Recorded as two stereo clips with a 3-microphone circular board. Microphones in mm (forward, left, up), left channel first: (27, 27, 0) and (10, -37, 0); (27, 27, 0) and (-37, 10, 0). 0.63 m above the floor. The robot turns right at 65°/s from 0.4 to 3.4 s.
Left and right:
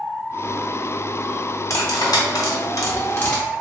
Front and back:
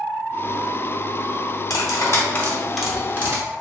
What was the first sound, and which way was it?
Cutlery clinking, 35° left.